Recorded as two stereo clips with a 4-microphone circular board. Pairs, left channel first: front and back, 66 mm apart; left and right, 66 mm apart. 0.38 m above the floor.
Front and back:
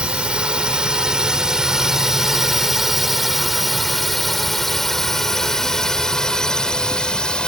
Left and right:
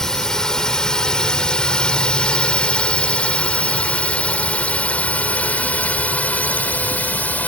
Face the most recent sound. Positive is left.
turn(degrees=60)